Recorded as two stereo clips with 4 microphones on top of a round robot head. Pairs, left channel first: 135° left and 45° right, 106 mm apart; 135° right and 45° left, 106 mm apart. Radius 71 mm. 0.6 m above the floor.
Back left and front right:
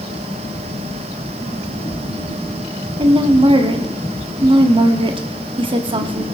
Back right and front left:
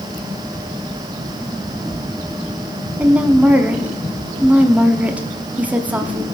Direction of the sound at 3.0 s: 30° right.